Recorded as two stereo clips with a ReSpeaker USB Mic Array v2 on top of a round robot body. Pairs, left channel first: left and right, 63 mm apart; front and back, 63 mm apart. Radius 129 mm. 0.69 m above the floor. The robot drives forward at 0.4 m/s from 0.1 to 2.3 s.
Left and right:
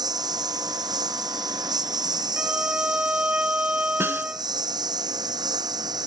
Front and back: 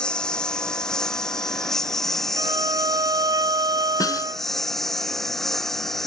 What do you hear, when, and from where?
0.0 s a lawn mower: 80° right; by 6.1 s 85° right
2.4 s a violin: 160° right
4.0 s a snare drum: 35° right